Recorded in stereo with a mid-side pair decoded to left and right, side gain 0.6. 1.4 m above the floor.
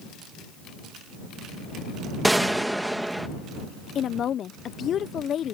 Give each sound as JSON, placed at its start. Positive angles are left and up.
{"t": 2.2, "sound": "a gunshot", "azimuth_deg": -5}
{"t": 4.0, "sound": "a woman speaking", "azimuth_deg": 45}